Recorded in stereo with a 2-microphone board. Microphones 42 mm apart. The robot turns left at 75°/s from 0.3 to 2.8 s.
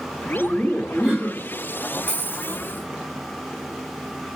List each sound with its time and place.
0.4 s laughter: straight ahead, 1.4 m; by 1.5 s 80° right, 1.4 m
2.1 s a dropped coin: 120° right, 1.0 m; by 2.6 s 160° right, 1.0 m